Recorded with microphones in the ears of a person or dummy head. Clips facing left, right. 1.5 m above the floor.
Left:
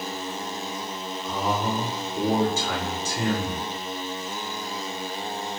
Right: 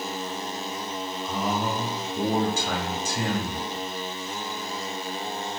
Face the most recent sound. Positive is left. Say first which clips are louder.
# left 1 dB
turn(degrees=-70)  # may be behind; listen again after turning